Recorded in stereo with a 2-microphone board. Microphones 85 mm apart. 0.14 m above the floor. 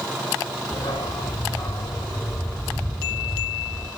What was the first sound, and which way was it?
A dog barking, 80° left.